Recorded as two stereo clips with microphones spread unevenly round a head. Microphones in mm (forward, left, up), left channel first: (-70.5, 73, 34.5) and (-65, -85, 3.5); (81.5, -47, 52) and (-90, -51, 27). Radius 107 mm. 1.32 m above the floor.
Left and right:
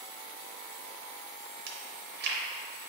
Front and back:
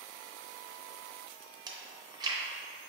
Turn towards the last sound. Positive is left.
turn(degrees=-110)